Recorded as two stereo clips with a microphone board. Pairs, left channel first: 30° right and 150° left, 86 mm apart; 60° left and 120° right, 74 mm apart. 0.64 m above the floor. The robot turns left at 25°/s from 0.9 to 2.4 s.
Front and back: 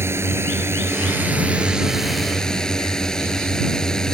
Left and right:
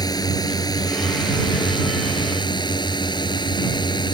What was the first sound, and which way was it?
A drone, 90° left.